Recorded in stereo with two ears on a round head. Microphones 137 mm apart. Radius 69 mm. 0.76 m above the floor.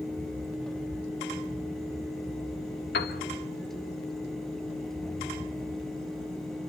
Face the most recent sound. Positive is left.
turn(degrees=70)  # may be behind; listen again after turning